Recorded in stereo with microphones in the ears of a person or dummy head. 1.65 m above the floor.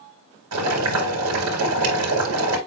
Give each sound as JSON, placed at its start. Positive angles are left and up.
{"t": 0.5, "sound": "boiling", "side_deg": -85, "distance_m": 3.5}